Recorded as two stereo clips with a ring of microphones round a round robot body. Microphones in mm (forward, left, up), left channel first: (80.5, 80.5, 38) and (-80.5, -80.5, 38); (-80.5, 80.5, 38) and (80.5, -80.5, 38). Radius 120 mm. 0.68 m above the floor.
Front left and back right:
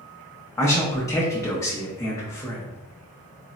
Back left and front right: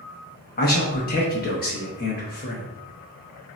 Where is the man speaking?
115° left, 0.6 m.